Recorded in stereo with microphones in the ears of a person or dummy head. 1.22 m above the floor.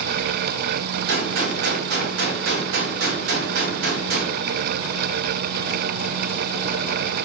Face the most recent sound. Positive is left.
turn(degrees=-70)  # may be behind; listen again after turning